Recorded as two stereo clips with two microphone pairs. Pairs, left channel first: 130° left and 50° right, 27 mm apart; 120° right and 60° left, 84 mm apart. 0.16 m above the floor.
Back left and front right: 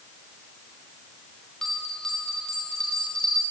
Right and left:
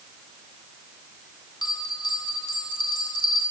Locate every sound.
1.6 s a bell: 155° right, 5 m